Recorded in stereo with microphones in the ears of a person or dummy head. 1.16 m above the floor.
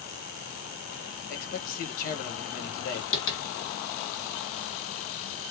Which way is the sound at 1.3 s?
50° left (ahead or behind).